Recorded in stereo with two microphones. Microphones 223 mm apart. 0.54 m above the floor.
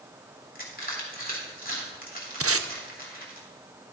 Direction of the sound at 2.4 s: 70° right (ahead or behind).